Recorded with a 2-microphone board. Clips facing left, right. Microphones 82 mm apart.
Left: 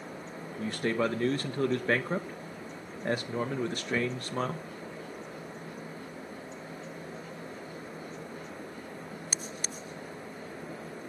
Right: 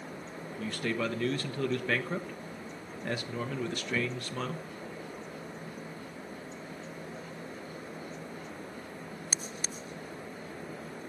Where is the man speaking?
30° left (ahead or behind), 1.1 m.